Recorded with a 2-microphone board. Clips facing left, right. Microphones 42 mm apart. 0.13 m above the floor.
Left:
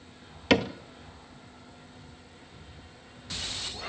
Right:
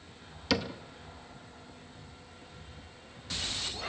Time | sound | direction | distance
0.5 | a cupboard door | 50° left (ahead or behind) | 0.8 m